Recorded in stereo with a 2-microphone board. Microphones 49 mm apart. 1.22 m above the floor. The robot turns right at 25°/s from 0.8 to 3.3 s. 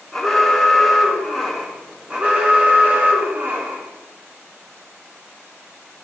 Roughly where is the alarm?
Behind.